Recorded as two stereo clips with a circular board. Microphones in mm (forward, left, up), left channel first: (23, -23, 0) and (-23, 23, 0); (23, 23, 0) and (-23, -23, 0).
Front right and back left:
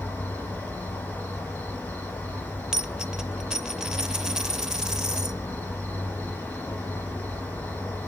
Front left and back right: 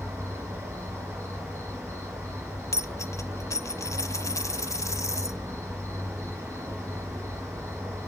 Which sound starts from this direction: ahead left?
A dropped coin, at 2.7 s.